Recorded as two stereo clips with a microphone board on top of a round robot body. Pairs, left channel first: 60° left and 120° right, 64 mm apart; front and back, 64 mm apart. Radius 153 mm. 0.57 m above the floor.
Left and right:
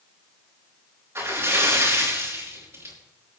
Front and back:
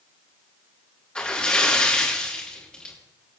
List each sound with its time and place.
1.1 s a splash: 75° right, 4.5 m